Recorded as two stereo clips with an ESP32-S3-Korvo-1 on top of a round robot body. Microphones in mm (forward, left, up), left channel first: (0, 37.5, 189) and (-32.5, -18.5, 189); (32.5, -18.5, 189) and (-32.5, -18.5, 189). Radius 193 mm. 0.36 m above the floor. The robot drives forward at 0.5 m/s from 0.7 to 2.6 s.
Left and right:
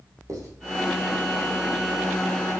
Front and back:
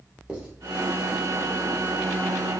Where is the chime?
No chime in this recording.